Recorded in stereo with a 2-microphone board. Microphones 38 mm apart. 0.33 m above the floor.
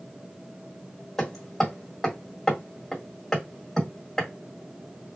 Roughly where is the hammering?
Centre.